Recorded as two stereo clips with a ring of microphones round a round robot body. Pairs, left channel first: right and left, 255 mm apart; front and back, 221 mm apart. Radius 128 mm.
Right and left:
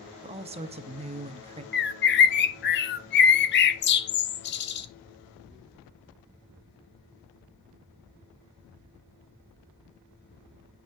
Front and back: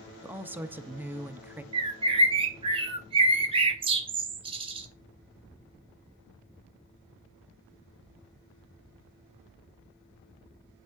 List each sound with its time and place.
0.2 s a woman speaking: 110° left, 0.9 m
1.7 s a bird: 120° right, 0.9 m